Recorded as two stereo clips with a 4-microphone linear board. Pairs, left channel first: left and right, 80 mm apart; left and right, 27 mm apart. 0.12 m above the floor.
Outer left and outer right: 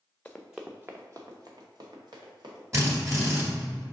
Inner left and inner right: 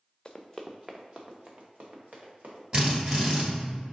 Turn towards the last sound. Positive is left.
turn(degrees=-40)  # may be behind; listen again after turning